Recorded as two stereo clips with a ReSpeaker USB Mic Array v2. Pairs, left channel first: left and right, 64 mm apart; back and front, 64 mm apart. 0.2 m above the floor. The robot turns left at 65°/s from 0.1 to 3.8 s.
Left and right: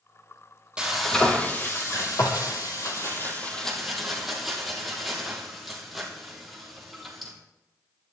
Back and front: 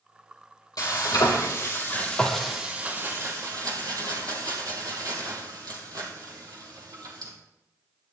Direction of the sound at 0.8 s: 165° right.